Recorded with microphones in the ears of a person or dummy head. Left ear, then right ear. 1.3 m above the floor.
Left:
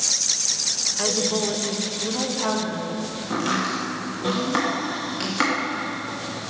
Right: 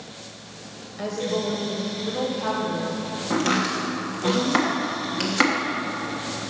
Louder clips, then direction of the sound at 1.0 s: Left 4 dB; 45° left (ahead or behind).